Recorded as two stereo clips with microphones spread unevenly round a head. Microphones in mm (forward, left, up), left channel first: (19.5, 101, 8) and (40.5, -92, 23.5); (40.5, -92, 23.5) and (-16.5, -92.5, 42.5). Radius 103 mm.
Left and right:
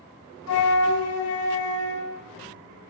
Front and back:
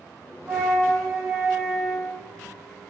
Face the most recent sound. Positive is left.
turn(degrees=95)